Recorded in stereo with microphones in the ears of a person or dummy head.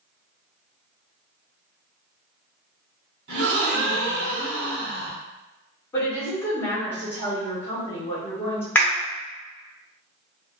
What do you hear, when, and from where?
3.3 s a gasp: 75° right (ahead or behind), 1.4 m
5.9 s a woman speaking: 10° left (ahead or behind), 0.8 m
8.8 s a clap: 10° left (ahead or behind), 0.8 m